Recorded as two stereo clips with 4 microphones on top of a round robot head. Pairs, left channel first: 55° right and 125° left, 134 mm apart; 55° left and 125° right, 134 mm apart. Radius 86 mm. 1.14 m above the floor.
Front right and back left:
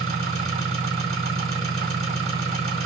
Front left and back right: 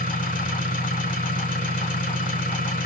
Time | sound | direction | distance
0.0 | an engine running | 80° left | 3.5 m